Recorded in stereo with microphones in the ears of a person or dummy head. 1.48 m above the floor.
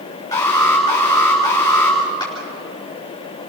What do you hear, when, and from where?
0.3 s an alarm: 20° left (ahead or behind), 6 m
2.2 s a clap: 25° left (ahead or behind), 4.5 m